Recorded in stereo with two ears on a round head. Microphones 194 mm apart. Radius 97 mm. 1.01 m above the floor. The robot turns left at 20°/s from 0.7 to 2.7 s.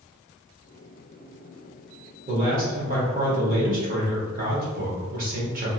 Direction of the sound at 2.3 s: 40° right (ahead or behind).